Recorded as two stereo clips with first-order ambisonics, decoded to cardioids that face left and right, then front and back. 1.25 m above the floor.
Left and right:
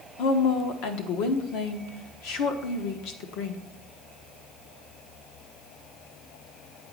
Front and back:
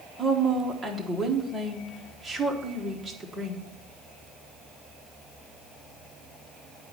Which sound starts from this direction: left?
A woman speaking, at 0.2 s.